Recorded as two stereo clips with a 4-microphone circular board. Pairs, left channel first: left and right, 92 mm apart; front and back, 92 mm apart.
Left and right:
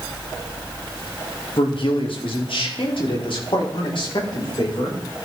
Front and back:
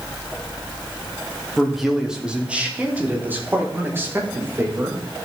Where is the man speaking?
90° left, 1.9 m; by 5.2 s 120° left, 5 m.